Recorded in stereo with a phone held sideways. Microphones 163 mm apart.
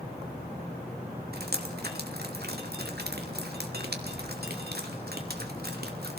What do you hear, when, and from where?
1.3 s dripping: 80° right, 2.5 m